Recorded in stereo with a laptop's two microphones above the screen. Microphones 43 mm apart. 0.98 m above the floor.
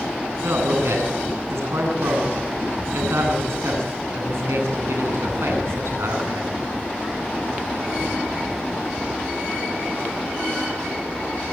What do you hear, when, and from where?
0.4 s a man speaking: 85° right, 9.5 m